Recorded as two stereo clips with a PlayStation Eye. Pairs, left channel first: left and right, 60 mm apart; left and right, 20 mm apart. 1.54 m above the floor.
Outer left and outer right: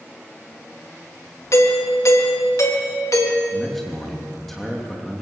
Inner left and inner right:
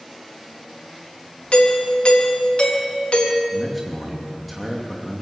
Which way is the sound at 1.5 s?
55° left (ahead or behind).